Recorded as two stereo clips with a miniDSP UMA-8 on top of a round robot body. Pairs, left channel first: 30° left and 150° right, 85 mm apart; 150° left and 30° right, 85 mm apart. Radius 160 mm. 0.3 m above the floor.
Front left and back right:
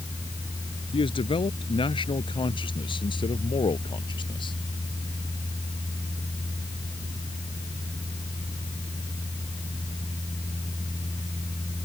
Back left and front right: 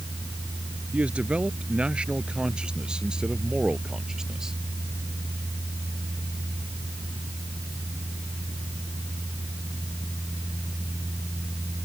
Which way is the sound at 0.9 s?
45° left.